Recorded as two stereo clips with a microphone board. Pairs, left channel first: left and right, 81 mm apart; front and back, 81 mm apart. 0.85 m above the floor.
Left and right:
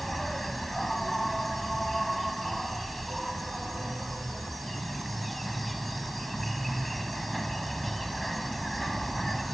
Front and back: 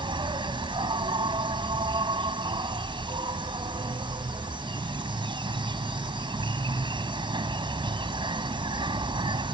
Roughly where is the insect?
Behind.